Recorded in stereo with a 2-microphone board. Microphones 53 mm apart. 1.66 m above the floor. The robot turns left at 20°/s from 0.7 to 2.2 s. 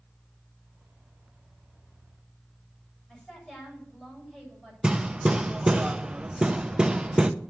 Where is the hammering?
15° right (ahead or behind), 0.7 m.